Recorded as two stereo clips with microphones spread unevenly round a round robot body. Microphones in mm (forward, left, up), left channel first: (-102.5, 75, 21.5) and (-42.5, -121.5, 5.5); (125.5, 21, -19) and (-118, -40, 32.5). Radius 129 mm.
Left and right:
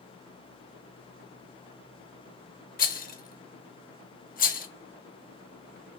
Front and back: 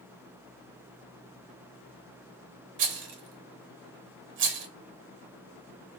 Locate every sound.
2.8 s a rattle: 150° left, 0.7 m